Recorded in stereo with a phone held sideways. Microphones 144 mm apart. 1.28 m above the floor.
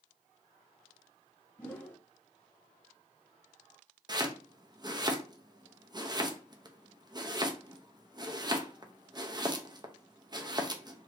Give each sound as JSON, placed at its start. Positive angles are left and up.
{"t": 1.6, "sound": "a whoosh", "side_deg": 15, "distance_m": 0.9}
{"t": 4.1, "sound": "chopping", "side_deg": -30, "distance_m": 0.6}